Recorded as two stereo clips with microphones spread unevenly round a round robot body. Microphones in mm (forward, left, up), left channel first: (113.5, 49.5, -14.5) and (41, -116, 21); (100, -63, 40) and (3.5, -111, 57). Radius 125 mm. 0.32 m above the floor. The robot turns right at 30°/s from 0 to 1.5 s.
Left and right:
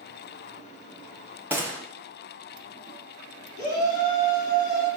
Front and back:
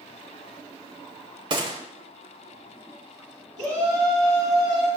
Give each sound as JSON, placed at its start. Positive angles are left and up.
{"t": 1.5, "sound": "a gunshot", "azimuth_deg": 160, "distance_m": 0.5}
{"t": 3.6, "sound": "a shout", "azimuth_deg": 115, "distance_m": 2.5}